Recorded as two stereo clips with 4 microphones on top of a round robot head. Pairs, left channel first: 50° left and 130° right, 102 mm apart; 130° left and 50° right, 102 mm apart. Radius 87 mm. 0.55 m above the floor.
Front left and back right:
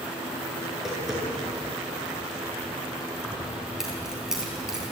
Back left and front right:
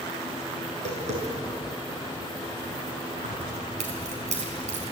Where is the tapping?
45° right, 8.5 m.